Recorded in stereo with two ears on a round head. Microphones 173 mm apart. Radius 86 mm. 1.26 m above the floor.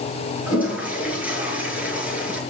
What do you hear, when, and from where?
0.5 s a toilet flushing: 5° right (ahead or behind), 6.5 m